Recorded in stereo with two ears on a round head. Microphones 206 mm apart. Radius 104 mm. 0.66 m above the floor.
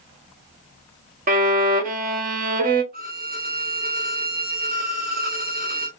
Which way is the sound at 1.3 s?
35° right (ahead or behind).